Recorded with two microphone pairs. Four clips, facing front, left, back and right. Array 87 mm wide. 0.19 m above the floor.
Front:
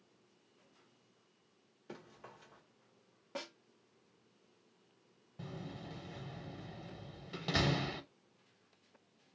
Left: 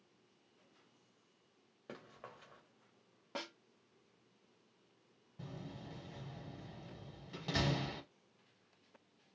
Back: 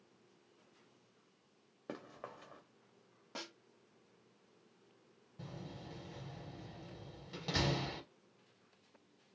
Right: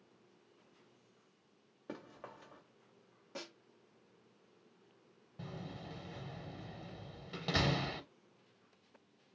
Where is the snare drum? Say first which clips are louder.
Left 3 dB, front 4 dB; 85° left, 0.8 m.